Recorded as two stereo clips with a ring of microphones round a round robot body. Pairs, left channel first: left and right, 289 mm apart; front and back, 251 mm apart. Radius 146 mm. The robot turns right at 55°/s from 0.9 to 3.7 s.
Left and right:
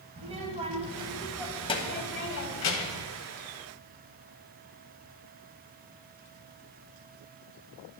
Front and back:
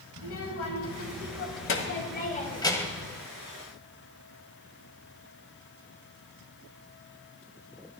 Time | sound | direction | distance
0.2 | a child speaking | 25° right | 1.3 m